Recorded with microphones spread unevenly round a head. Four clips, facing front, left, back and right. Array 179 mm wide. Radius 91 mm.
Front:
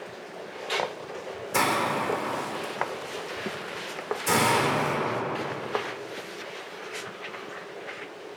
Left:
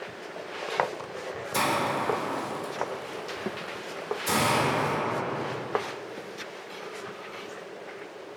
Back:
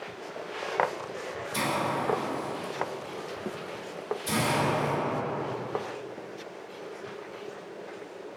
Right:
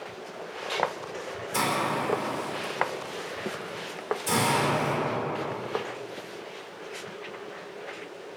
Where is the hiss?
Straight ahead, 3.5 m.